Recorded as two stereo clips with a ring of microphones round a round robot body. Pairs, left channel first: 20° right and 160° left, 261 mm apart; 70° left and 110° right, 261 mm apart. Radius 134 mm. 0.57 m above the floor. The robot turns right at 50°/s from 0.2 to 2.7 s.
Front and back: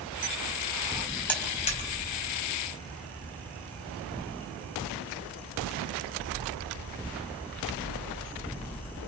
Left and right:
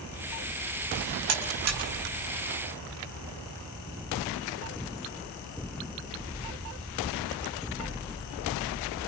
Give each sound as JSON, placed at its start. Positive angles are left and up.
{"t": 1.3, "sound": "a buzzer", "azimuth_deg": -105, "distance_m": 4.5}